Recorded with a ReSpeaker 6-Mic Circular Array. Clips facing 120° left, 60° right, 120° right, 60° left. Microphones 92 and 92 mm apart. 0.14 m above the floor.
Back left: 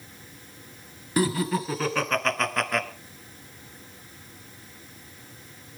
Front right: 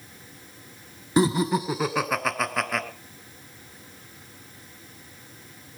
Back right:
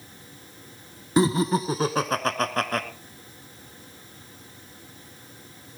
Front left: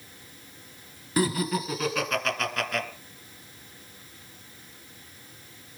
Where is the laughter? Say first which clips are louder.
Front right 3 dB, back right 5 dB; 90° right, 1.2 m; by 2.9 s 145° right, 1.5 m.